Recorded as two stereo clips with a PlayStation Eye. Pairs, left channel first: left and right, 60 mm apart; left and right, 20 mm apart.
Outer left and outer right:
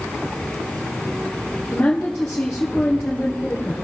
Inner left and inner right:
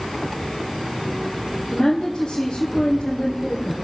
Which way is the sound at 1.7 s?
25° left (ahead or behind).